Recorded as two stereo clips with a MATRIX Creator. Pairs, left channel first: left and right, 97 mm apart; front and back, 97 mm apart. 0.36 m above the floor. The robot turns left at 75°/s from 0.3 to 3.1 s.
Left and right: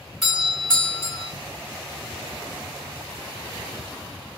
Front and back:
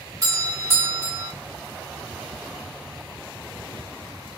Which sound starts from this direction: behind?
A doorbell, at 0.2 s.